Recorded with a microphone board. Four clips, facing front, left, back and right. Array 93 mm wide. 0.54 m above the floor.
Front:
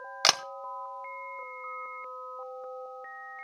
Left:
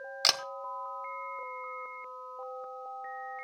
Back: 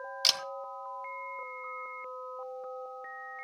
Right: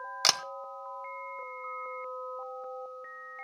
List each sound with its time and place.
0.2 s a camera shutter: 10° right, 0.6 m